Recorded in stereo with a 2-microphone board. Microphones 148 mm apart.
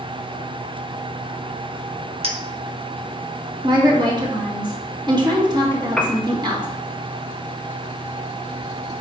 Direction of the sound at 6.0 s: 5° left (ahead or behind).